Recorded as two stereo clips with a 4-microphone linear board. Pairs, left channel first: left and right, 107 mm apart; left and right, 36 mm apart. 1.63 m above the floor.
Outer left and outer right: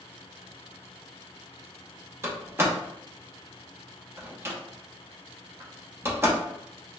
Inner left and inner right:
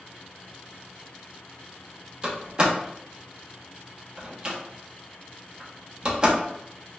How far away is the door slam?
About 0.8 m.